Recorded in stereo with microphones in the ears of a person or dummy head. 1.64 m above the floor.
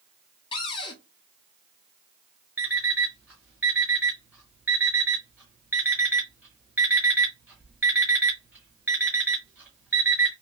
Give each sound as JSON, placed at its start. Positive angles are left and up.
{"t": 0.5, "sound": "a cupboard door", "side_deg": 30, "distance_m": 0.9}
{"t": 2.6, "sound": "an alarm clock", "side_deg": -5, "distance_m": 1.0}